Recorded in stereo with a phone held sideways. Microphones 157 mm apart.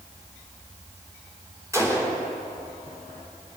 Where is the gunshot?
20° right (ahead or behind), 3 m.